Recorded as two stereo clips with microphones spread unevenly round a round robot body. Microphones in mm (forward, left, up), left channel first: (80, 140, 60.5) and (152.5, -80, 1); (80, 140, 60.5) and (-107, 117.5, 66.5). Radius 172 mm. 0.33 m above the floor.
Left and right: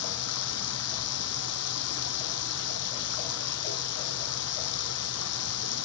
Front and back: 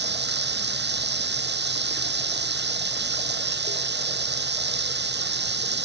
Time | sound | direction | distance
0.0 | running water | 160° left | ?